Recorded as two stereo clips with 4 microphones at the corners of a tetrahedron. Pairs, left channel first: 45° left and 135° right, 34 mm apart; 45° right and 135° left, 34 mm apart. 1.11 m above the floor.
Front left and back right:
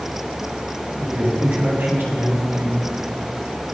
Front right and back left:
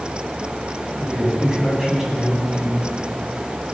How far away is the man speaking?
About 8 m.